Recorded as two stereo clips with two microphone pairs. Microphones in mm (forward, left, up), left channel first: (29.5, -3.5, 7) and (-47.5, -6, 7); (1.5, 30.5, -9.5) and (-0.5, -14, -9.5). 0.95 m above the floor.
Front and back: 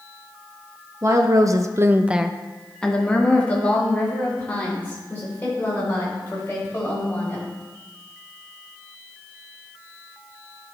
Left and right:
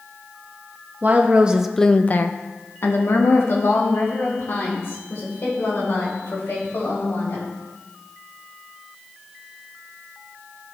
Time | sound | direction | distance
1.0 | a woman speaking | 135° right | 0.8 m